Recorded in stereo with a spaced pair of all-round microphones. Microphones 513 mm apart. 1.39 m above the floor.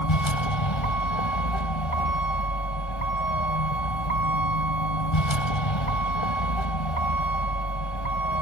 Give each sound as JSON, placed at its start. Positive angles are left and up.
{"t": 0.0, "sound": "a vehicle", "side_deg": 65}